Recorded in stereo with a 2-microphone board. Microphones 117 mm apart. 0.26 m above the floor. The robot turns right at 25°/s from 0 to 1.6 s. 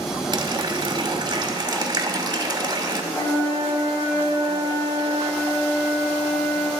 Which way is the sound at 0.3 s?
100° right.